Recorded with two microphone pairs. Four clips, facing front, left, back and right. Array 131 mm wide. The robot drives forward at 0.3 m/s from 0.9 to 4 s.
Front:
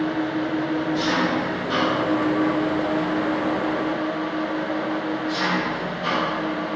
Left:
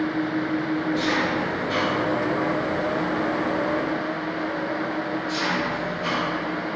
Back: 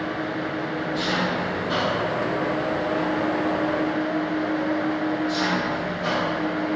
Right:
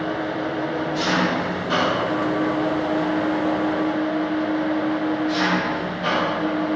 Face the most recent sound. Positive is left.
turn(degrees=-120)